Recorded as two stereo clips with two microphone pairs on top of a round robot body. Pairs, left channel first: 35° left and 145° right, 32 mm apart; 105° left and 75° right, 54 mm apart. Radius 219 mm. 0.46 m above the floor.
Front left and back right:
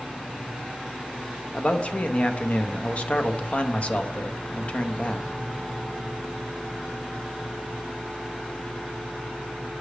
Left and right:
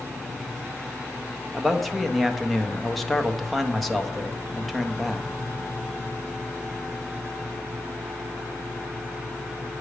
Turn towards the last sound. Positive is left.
turn(degrees=30)